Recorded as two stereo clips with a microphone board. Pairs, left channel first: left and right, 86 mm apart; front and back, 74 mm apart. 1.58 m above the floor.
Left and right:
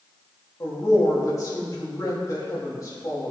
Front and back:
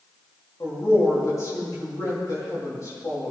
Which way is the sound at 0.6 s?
40° left.